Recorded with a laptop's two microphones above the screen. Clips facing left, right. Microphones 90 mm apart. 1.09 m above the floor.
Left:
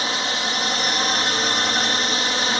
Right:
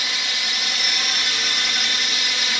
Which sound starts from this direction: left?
A drone, at 0.0 s.